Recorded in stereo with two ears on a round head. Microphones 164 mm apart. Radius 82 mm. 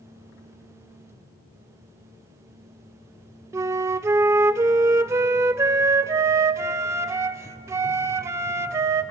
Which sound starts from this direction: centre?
A flute, at 3.5 s.